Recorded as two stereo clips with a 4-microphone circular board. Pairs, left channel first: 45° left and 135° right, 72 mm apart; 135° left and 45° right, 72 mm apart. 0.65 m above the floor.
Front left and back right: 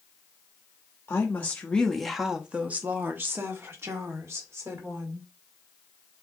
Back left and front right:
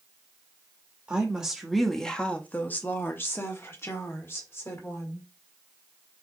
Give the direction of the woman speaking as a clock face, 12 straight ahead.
11 o'clock.